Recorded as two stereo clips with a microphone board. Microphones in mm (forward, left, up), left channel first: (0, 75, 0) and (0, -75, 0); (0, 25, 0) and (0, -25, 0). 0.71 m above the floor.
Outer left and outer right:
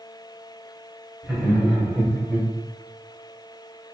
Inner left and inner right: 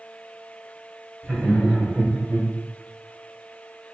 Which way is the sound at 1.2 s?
5° right (ahead or behind).